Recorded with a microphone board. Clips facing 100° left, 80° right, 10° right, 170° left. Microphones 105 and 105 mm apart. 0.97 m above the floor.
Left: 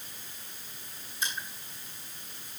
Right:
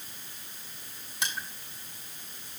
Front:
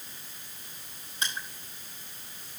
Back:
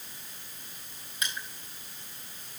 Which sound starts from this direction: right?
Crushing, at 1.2 s.